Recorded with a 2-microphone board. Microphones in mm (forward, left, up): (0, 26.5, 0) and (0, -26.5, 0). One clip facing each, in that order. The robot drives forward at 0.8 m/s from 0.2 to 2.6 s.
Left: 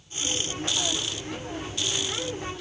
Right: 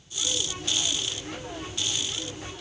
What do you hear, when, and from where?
Only background noise.